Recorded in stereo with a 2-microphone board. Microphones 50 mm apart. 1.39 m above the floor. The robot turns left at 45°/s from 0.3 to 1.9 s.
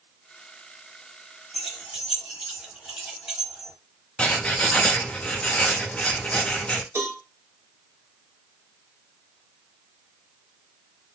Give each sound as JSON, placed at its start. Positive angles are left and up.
{"t": 1.5, "sound": "keys jangling", "side_deg": 0, "distance_m": 0.7}
{"t": 4.2, "sound": "writing", "side_deg": 20, "distance_m": 0.5}
{"t": 7.0, "sound": "a cowbell", "side_deg": -55, "distance_m": 1.0}